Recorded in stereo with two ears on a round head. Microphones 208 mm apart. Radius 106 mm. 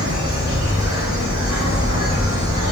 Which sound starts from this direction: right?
An insect, at 0.0 s.